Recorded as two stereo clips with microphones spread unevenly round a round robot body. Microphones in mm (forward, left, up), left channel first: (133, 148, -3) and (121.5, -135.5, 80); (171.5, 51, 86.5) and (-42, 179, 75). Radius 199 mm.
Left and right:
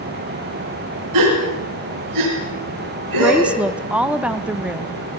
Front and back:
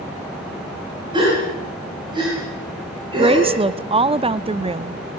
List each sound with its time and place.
1.1 s a gasp: 135° right, 4.5 m
3.2 s a woman speaking: 145° left, 0.6 m